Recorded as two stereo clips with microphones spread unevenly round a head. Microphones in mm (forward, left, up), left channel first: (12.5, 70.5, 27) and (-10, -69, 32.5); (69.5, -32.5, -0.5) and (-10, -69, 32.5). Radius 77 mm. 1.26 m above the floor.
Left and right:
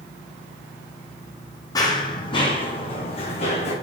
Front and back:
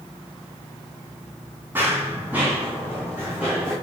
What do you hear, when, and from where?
1.8 s running footsteps: 145° left, 2.5 m; by 3.7 s 130° left, 4 m